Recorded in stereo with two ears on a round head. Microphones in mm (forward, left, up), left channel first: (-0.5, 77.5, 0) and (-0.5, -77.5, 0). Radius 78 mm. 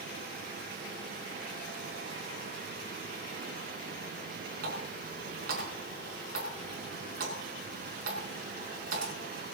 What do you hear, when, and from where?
4.6 s a running tap: 55° right (ahead or behind), 5.5 m